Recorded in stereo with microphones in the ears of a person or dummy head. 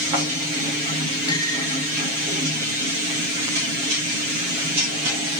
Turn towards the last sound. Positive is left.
turn(degrees=20)  # may be behind; listen again after turning